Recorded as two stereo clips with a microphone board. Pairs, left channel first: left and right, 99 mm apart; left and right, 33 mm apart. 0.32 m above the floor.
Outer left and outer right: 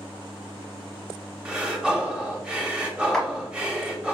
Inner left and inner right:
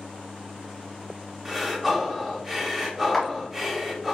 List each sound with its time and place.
1.4 s breathing: 10° right (ahead or behind), 0.6 m
3.1 s a clap: 5° left (ahead or behind), 0.8 m